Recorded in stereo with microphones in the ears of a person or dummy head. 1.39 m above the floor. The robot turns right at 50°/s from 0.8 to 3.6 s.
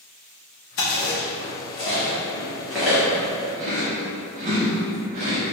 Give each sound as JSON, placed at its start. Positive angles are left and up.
{"t": 0.8, "sound": "chewing", "side_deg": 50, "distance_m": 0.7}